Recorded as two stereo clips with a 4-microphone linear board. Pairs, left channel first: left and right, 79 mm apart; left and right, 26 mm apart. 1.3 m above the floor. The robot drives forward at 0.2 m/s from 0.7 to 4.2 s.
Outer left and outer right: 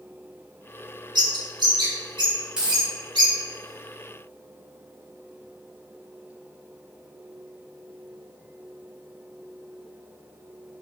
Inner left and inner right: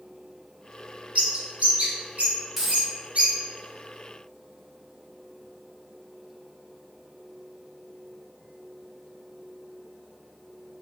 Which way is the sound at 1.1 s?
65° right (ahead or behind).